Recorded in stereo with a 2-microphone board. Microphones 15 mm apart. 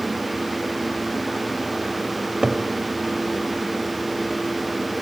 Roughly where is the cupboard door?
Right.